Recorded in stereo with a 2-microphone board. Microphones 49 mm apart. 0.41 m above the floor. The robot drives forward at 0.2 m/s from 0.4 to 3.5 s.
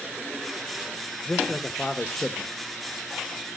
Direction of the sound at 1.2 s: 25° left (ahead or behind).